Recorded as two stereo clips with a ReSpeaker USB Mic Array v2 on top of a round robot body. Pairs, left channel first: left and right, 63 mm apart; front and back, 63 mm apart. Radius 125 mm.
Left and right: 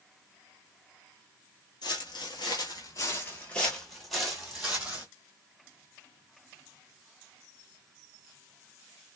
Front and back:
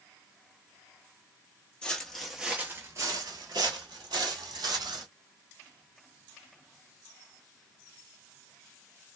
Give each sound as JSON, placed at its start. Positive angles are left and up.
{"t": 1.8, "sound": "footsteps", "azimuth_deg": 75, "distance_m": 0.8}